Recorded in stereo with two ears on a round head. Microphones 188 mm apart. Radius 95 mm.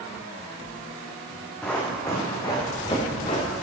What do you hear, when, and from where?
1.6 s running footsteps: 5° left (ahead or behind), 3 m; by 3.6 s 35° left (ahead or behind), 4.5 m